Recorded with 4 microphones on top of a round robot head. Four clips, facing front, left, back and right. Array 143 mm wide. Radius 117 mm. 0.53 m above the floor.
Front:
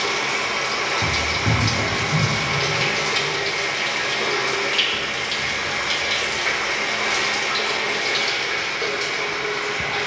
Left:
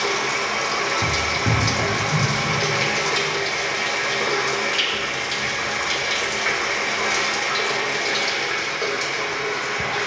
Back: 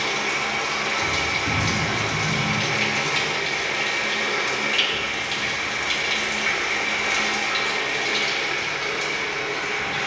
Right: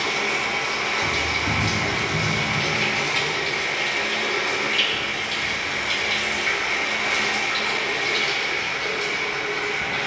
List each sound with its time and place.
0.0 s running water: 55° left, 0.9 m